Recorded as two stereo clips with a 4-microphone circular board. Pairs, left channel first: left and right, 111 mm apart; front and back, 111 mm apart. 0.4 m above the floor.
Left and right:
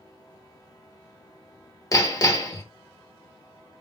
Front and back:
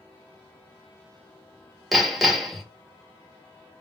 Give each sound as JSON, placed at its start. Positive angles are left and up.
{"t": 1.9, "sound": "hammering", "azimuth_deg": 90, "distance_m": 1.0}